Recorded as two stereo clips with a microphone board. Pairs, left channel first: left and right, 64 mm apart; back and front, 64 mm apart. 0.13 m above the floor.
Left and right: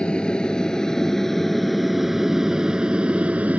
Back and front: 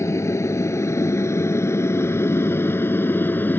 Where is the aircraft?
160° left; by 3.6 s 145° right.